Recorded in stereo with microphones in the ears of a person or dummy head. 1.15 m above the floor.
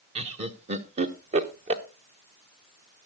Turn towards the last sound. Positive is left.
turn(degrees=-30)  # may be behind; listen again after turning